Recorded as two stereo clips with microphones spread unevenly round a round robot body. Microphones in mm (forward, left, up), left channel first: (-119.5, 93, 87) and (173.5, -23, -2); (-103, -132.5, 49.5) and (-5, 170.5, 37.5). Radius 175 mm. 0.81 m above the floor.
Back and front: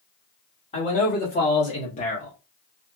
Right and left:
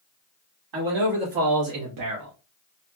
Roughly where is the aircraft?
I don't hear an aircraft.